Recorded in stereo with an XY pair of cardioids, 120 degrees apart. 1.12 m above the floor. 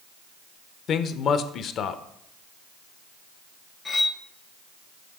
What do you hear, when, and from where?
0.9 s a man speaking: 55° left, 0.5 m
3.9 s cutlery clinking: 30° left, 0.6 m